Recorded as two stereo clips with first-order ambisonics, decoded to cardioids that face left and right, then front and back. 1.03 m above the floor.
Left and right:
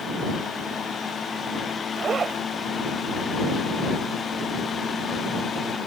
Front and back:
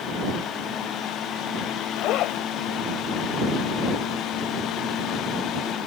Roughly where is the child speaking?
No child speaking in this recording.